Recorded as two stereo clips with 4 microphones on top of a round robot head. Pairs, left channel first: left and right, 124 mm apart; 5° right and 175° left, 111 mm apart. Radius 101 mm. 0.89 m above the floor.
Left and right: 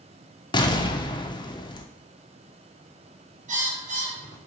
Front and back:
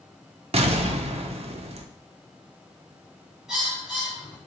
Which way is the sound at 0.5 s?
145° left.